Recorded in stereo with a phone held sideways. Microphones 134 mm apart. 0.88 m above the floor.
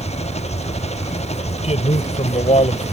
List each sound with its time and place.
0.0 s an engine running: 55° left (ahead or behind)
1.6 s a man speaking: 55° left (ahead or behind)